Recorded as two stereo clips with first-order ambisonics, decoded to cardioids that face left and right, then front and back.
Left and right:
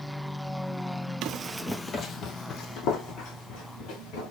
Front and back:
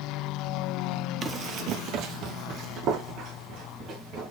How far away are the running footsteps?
About 0.8 m.